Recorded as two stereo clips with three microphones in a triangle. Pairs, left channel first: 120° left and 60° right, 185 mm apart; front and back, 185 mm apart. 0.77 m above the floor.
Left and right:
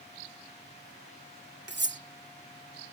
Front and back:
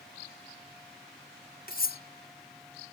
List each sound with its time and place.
1.7 s cutlery clinking: 40° right